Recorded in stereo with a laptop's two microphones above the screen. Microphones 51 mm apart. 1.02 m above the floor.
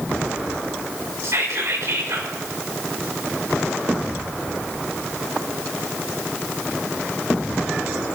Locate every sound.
1.2 s whispering: 70° right (ahead or behind), 3.5 m